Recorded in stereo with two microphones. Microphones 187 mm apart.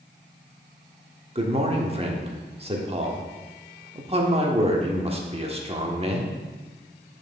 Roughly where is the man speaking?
Right.